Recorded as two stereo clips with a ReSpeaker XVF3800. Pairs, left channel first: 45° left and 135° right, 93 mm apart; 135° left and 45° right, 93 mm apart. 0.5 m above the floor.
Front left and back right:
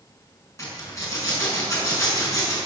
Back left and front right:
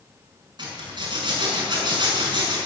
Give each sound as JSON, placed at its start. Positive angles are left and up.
{"t": 0.6, "sound": "a zipper", "azimuth_deg": -5, "distance_m": 6.0}